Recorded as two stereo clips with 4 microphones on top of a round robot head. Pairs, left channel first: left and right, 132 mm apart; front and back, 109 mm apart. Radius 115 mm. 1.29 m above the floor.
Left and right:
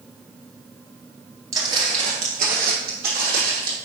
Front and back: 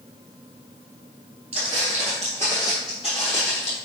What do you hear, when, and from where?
1.5 s footsteps: 145° right, 1.5 m; by 3.8 s 50° right, 3 m